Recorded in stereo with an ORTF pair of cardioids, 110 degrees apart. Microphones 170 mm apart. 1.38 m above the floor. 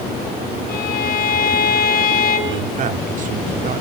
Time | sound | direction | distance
0.7 | a violin | 65° left | 4.5 m
2.5 | a man speaking | 50° right | 3 m